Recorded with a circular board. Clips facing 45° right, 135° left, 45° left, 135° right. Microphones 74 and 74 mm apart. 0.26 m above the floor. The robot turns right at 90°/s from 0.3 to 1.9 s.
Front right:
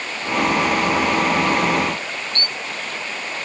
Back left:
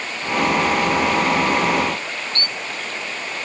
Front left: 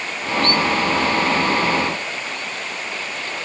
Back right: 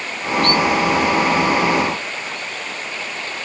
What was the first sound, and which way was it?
Only background noise.